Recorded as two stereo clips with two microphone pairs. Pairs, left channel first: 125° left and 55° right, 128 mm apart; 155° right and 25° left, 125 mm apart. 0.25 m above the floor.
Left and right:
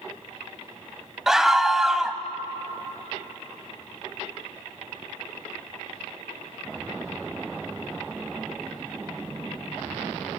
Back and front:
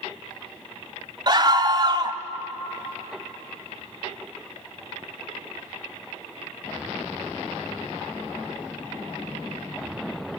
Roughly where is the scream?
Ahead left.